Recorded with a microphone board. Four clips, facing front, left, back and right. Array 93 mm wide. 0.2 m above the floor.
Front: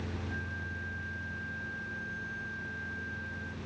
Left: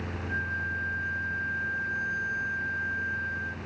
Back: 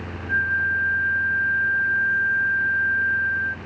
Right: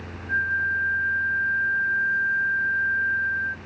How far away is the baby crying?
I don't hear a baby crying.